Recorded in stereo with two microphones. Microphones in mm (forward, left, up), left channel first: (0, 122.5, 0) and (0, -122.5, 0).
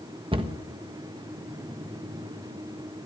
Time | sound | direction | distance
0.3 | a cupboard door | 20° right (ahead or behind) | 1.3 m